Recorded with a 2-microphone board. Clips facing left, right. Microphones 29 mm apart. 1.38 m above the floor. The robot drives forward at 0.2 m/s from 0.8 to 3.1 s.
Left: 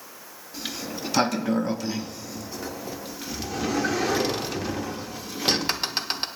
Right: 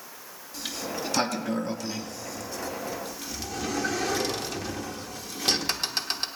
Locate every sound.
0.5 s a sliding door: 20° left (ahead or behind), 0.8 m